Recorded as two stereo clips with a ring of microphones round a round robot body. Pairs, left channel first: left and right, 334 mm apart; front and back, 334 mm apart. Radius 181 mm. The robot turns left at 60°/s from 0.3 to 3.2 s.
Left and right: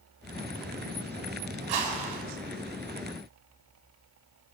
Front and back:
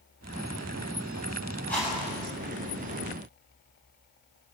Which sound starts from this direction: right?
A whoosh, at 1.7 s.